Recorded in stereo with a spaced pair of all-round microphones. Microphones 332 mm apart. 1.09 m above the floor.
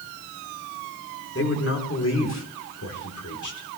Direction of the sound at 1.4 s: 40° left (ahead or behind).